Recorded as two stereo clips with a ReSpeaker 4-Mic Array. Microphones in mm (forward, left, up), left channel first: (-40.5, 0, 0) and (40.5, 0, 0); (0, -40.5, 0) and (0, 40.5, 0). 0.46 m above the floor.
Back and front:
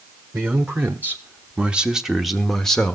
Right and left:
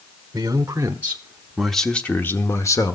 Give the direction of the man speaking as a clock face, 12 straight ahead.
10 o'clock.